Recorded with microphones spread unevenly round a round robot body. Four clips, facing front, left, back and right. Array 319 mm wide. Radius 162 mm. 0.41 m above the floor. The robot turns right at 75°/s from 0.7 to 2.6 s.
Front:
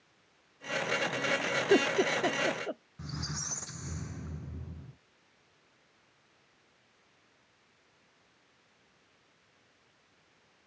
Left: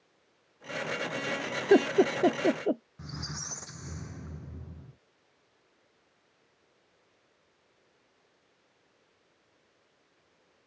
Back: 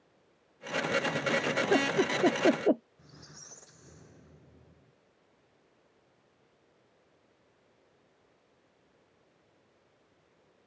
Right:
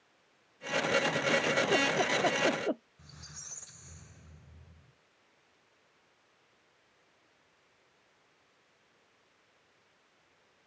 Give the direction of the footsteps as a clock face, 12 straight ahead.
No footsteps in this recording.